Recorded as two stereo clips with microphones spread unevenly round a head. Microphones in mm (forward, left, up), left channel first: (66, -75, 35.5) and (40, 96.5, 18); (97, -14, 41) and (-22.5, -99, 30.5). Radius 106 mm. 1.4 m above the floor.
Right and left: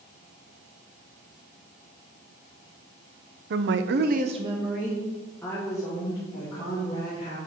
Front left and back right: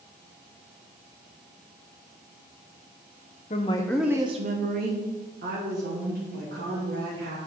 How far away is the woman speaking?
About 0.8 m.